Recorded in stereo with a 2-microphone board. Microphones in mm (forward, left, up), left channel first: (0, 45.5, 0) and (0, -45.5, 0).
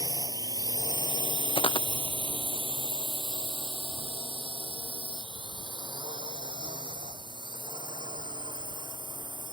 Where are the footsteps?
85° left.